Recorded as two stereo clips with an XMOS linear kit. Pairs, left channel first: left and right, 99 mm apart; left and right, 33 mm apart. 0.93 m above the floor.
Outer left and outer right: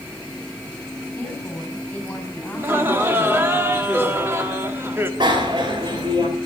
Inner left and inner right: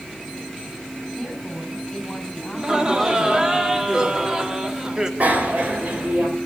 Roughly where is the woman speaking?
Centre.